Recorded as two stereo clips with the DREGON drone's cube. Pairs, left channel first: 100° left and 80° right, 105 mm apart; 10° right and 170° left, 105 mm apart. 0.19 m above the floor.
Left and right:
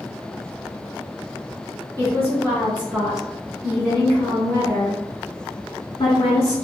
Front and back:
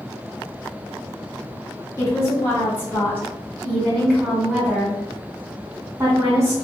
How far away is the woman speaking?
About 1.8 m.